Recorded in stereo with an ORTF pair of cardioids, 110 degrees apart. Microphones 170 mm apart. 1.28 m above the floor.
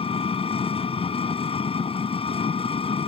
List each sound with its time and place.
0.0 s an engine running: 35° left